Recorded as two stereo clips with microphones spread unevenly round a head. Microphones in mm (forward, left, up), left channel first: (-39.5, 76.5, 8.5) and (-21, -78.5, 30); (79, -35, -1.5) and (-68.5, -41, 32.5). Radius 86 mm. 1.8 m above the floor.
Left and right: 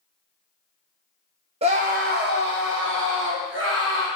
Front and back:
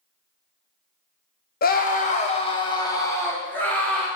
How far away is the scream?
About 1.1 m.